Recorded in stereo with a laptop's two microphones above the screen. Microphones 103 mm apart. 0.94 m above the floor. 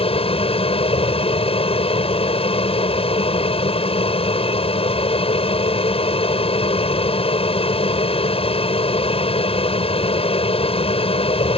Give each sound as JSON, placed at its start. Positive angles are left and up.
{"t": 0.0, "sound": "an aircraft", "side_deg": 70}